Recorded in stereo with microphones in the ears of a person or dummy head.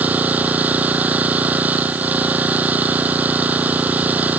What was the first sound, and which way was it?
An engine running, 10° right (ahead or behind).